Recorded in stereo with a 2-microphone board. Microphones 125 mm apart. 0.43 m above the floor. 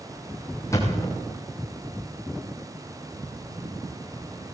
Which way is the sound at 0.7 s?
25° left (ahead or behind).